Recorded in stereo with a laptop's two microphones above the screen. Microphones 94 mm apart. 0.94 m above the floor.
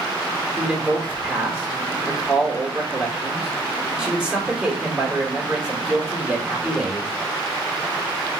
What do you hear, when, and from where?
0.6 s a man speaking: 10° right (ahead or behind), 2 m